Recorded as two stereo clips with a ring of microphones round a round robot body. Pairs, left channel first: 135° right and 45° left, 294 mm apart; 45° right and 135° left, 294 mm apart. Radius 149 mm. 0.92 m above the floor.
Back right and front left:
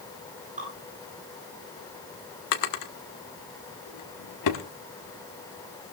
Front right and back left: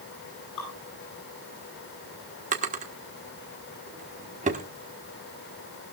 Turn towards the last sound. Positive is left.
turn(degrees=-160)